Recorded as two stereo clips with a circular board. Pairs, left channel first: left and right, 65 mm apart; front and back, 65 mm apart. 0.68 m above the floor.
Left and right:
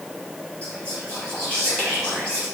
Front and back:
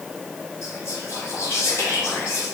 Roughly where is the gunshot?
No gunshot in this recording.